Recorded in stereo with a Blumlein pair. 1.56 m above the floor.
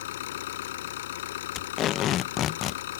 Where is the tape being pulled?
30° left.